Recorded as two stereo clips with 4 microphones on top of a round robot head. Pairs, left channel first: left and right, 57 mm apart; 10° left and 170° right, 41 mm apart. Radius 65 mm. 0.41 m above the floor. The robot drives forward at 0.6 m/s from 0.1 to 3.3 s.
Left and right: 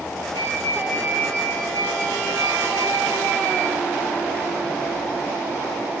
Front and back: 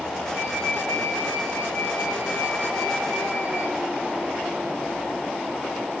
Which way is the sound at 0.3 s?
40° right.